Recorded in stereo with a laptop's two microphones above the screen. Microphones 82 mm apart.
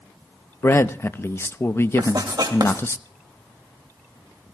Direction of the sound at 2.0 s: 60° right (ahead or behind).